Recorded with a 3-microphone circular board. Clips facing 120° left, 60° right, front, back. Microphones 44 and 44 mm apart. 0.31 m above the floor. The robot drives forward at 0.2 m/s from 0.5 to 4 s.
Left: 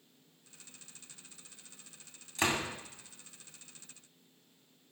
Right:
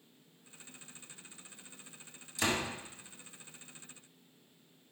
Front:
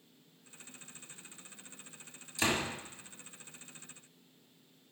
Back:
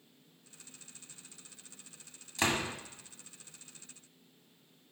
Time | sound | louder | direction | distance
2.4 | a door slam | left 1 dB, back 1 dB | 155° left | 1.8 m